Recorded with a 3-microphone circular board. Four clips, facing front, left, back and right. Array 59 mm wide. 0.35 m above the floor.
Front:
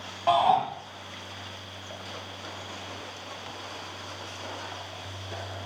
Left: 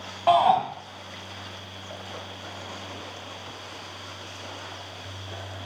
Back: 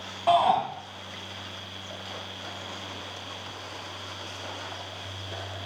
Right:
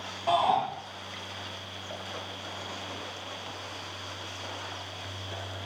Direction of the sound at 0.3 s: 80° left.